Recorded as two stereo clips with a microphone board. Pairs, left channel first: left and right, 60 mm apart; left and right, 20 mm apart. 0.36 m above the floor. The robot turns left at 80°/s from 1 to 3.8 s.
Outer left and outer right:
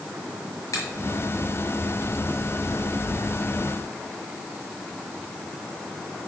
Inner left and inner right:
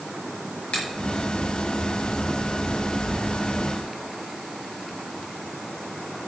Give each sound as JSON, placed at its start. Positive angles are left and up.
{"t": 0.7, "sound": "a finger snap", "side_deg": 60, "distance_m": 5.5}